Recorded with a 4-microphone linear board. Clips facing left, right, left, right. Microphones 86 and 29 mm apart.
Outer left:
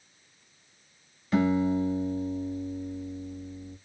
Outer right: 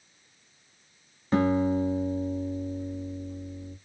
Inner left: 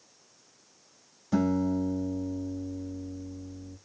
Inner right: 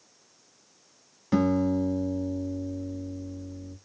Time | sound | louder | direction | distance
1.3 | a guitar | outer right 1 dB, inner right 3 dB | 35° right (ahead or behind) | 1.2 m